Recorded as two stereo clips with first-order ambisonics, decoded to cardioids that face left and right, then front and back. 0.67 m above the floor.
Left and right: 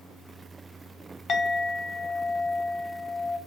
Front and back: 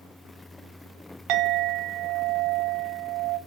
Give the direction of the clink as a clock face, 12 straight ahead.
7 o'clock.